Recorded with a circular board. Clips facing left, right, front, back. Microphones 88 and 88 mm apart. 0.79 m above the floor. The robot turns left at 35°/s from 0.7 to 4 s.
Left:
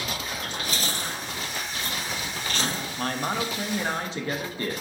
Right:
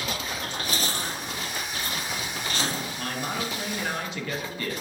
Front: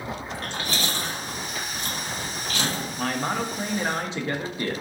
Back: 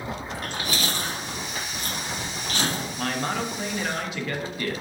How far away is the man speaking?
About 0.5 m.